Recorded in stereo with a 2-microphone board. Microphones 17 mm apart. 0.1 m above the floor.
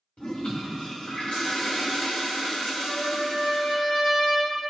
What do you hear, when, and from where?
0.2 s a toilet flushing: 85° left, 3 m
2.8 s a trumpet: 35° left (ahead or behind), 1.8 m